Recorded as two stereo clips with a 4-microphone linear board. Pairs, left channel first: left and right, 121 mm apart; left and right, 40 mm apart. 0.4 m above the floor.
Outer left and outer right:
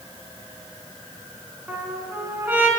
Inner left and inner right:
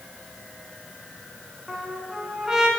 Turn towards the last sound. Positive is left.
turn(degrees=-15)  # may be behind; listen again after turning